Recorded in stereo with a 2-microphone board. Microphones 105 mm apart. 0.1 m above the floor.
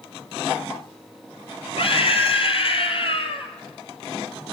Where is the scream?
55° left (ahead or behind), 3 m.